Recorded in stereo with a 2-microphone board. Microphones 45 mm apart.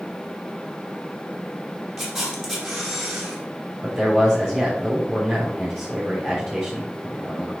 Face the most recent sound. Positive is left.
turn(degrees=0)  # may be behind; listen again after turning